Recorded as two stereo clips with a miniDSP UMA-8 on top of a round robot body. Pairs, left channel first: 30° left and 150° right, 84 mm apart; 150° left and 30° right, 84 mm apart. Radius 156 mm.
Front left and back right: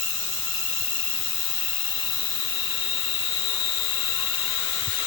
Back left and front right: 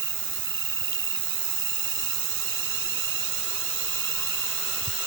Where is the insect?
5° left.